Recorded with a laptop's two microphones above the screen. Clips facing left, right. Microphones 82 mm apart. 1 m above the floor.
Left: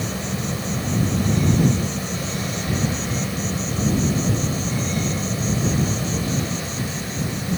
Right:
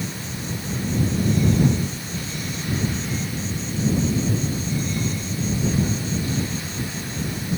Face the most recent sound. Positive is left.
turn(degrees=80)